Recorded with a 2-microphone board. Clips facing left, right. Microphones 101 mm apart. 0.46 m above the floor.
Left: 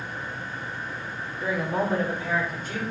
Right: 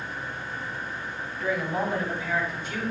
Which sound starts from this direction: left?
A woman speaking, at 1.4 s.